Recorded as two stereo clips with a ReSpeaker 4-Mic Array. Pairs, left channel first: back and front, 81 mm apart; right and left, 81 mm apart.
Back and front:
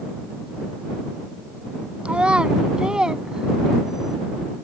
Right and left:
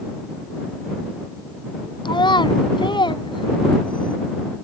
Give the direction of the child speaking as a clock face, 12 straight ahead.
3 o'clock.